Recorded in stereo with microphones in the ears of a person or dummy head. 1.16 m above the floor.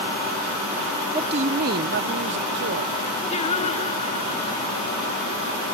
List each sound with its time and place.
1.1 s a man speaking: 15° right (ahead or behind); by 3.0 s 50° right (ahead or behind)
3.3 s singing: 35° left (ahead or behind)